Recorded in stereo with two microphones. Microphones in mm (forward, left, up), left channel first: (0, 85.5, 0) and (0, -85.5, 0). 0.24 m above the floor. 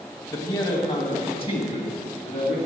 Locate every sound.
0.3 s a man speaking: 20° left (ahead or behind), 1.0 m; by 2.6 s 35° left (ahead or behind), 2.5 m